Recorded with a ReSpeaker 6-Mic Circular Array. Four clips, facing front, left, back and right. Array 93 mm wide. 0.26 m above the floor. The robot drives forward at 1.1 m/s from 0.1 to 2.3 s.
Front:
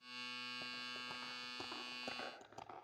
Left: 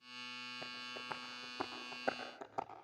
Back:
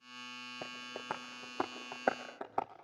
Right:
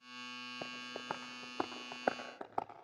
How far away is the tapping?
About 2.5 m.